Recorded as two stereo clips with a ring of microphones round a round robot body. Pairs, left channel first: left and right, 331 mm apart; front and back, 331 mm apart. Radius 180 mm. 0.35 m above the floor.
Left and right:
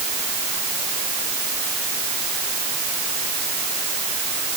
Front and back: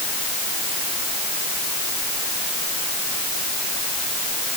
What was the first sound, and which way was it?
Only background noise.